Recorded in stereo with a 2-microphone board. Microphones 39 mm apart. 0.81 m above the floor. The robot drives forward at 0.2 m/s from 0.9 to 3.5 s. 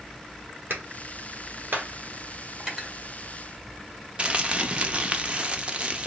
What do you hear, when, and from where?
0.7 s a clap: 60° right (ahead or behind), 1.6 m; by 1.9 s 55° right (ahead or behind), 1.7 m
2.6 s cutlery clinking: 20° right (ahead or behind), 2 m
4.2 s crumpling: 30° right (ahead or behind), 0.7 m